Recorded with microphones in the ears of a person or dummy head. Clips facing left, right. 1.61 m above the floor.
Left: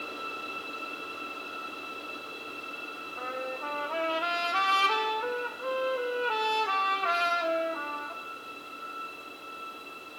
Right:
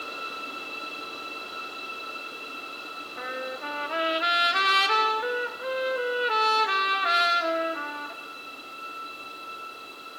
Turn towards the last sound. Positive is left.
turn(degrees=-20)  # may be behind; listen again after turning